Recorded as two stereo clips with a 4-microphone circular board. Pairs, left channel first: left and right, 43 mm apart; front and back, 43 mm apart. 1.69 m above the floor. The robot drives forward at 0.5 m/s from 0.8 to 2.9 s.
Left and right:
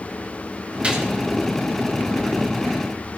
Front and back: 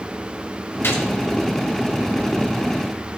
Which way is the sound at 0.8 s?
30° right.